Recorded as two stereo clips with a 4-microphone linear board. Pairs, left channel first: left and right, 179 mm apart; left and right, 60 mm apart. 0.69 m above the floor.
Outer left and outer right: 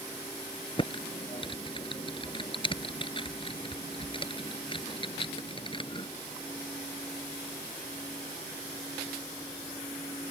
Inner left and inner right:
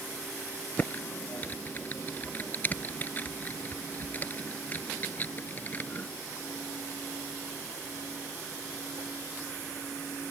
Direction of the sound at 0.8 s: 30° left (ahead or behind).